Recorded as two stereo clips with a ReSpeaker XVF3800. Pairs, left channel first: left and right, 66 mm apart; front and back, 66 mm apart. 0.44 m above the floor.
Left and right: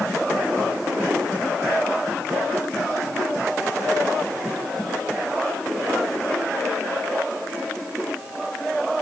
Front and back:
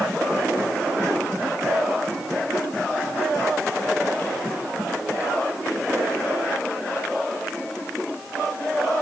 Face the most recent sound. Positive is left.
No sound to turn to.